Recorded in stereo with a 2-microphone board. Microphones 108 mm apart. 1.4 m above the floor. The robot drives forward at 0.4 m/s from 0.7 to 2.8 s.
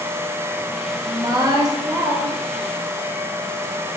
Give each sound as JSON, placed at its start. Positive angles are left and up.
{"t": 1.0, "sound": "a woman speaking", "side_deg": -45, "distance_m": 1.1}